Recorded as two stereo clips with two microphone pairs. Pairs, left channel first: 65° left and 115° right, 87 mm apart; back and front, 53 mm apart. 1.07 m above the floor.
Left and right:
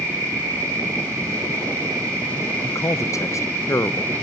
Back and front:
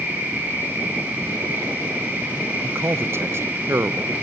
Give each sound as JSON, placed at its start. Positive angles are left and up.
{"t": 0.0, "sound": "an insect", "azimuth_deg": -60, "distance_m": 6.5}
{"t": 2.6, "sound": "a man speaking", "azimuth_deg": 15, "distance_m": 0.6}